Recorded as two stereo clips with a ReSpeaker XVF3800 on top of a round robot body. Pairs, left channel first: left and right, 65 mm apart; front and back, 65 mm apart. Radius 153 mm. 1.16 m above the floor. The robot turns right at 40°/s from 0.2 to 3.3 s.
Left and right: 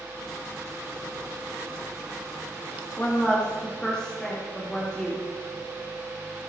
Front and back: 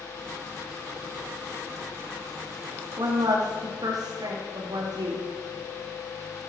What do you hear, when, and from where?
3.0 s a woman speaking: 160° left, 2.5 m; by 5.2 s 170° left, 2.5 m